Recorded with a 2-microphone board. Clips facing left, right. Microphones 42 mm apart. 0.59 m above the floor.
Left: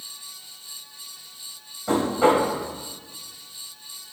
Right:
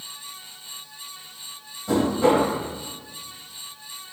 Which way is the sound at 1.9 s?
50° left (ahead or behind).